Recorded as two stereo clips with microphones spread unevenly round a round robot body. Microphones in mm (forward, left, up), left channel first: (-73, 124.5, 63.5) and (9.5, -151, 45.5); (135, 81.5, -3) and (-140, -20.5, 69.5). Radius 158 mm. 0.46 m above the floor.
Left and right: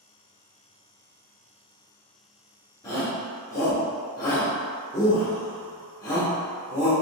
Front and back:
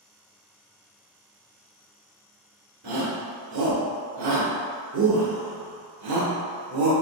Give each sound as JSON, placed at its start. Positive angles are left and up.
{"t": 2.8, "sound": "a shout", "azimuth_deg": -175, "distance_m": 1.4}